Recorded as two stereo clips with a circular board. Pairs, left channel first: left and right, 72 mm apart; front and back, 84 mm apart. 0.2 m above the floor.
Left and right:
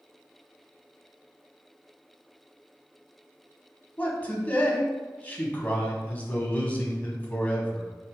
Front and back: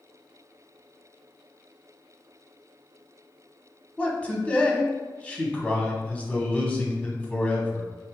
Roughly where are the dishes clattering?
I don't hear dishes clattering.